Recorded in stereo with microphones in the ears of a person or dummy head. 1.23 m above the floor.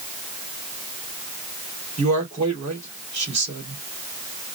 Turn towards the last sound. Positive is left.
turn(degrees=-30)  # may be behind; listen again after turning